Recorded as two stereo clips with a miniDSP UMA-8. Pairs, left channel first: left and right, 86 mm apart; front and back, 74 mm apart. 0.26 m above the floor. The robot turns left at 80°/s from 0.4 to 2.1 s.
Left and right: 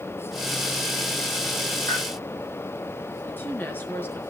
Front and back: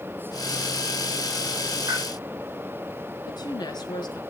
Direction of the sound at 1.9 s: 135° left.